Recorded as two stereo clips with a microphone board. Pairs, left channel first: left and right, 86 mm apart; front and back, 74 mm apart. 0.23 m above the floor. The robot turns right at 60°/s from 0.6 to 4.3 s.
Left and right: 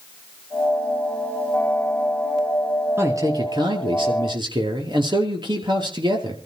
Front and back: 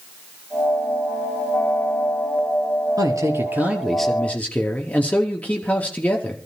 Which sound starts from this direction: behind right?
A man speaking, at 3.0 s.